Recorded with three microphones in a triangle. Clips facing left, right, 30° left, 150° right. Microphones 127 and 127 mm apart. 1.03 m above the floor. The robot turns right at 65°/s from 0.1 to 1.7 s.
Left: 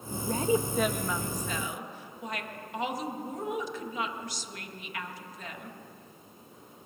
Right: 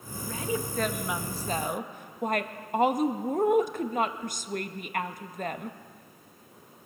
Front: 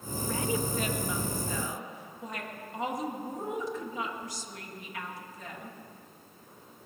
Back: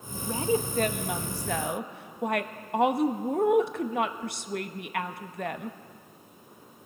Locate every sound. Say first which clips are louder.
0.1 s a woman speaking: left 5 dB, back 4 dB; 130° left, 0.8 m; by 5.8 s 130° right, 0.8 m